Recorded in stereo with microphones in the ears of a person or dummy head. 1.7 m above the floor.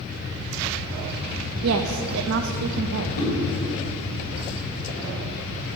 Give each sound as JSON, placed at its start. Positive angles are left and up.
{"t": 1.6, "sound": "a woman speaking", "side_deg": -75, "distance_m": 0.6}
{"t": 3.2, "sound": "a whoosh", "side_deg": 75, "distance_m": 4.0}